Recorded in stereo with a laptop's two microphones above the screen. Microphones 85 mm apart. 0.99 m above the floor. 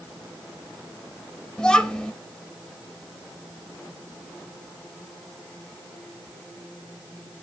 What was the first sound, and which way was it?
A child speaking, 15° left (ahead or behind).